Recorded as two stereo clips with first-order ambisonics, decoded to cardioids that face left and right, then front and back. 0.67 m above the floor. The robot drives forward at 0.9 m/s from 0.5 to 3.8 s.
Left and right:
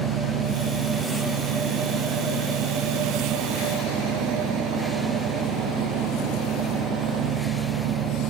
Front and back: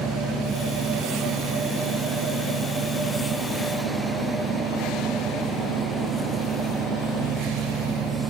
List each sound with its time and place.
0.0 s an engine running: 115° right; by 8.3 s 130° right